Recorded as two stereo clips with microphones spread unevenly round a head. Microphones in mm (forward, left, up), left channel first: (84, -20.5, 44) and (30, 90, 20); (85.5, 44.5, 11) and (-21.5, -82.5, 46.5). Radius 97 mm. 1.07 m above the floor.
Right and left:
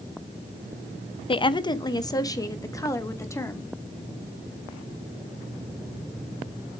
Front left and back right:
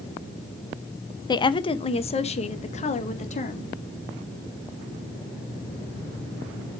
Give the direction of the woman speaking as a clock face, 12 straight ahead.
12 o'clock.